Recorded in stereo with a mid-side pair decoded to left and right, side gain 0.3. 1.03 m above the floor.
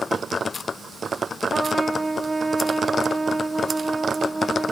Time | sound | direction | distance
1.5 | a trumpet | 30° right | 1.8 m